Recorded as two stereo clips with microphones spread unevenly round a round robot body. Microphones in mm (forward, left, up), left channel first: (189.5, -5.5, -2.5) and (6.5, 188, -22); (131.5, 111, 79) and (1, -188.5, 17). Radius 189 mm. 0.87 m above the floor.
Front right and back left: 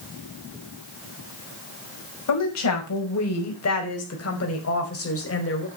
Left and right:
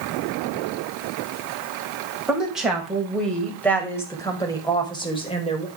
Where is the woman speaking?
30° right, 6.5 m; by 5.7 s 5° right, 5.5 m.